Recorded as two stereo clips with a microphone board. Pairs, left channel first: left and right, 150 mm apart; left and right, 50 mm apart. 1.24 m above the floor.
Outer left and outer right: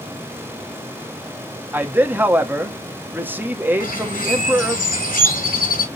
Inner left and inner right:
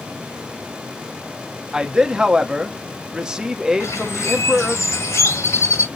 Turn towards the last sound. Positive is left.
turn(degrees=75)  # may be behind; listen again after turning